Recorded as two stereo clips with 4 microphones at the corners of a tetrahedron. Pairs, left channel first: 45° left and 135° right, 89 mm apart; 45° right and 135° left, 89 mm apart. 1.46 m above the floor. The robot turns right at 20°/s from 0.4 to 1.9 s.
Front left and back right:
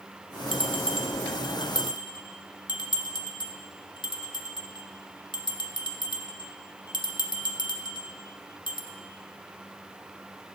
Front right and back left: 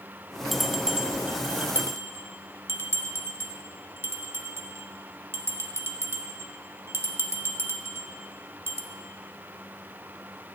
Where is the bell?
45° left, 0.5 m; by 8.8 s 75° left, 0.5 m.